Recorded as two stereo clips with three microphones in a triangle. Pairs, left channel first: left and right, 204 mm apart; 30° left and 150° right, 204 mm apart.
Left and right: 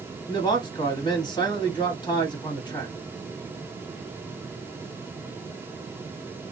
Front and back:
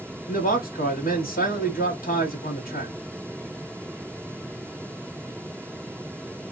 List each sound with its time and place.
0.3 s a man speaking: 30° left, 1.4 m